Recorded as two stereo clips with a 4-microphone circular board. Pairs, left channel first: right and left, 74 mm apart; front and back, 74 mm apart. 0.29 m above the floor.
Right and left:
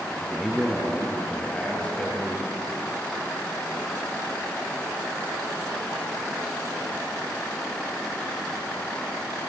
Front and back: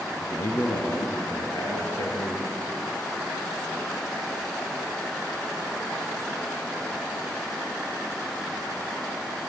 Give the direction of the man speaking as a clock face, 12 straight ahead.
12 o'clock.